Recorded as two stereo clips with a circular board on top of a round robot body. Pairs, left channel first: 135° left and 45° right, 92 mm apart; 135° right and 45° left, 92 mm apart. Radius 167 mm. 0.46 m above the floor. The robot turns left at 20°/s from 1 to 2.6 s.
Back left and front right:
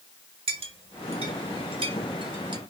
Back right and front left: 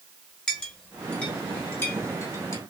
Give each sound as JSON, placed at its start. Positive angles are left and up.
{"t": 0.5, "sound": "a clink", "azimuth_deg": -55, "distance_m": 1.3}